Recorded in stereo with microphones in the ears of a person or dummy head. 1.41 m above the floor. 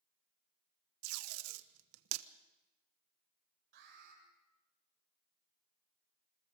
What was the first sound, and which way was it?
Tape being pulled, 85° right.